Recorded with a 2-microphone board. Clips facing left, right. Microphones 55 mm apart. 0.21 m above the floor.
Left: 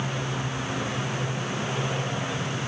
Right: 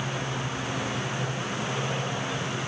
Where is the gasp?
No gasp in this recording.